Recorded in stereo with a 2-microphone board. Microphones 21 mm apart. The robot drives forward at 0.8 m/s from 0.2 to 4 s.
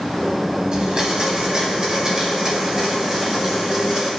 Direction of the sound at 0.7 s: 45° right (ahead or behind).